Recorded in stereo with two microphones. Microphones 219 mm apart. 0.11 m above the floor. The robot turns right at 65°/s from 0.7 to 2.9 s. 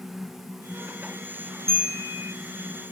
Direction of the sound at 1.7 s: 15° right.